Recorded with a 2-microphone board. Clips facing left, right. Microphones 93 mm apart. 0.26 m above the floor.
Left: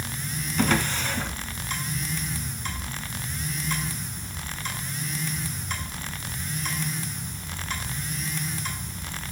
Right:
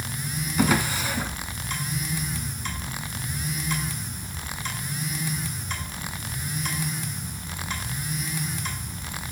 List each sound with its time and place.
0.6 s a drawer: 10° right (ahead or behind), 1.8 m